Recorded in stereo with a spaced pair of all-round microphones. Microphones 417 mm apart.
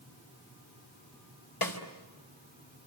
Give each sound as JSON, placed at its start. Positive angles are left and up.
{"t": 1.6, "sound": "a snare drum", "side_deg": 60, "distance_m": 3.0}